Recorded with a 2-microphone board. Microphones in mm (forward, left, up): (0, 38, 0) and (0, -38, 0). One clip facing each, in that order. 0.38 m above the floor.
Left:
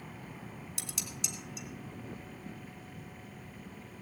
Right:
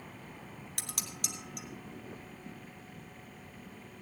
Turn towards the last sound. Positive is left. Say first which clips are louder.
# right 2 dB
turn(degrees=-55)  # may be behind; listen again after turning